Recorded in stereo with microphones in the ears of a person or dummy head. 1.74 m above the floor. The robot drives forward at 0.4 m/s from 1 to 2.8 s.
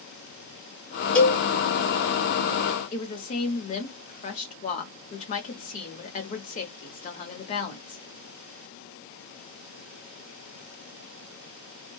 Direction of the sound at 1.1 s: 10° left (ahead or behind).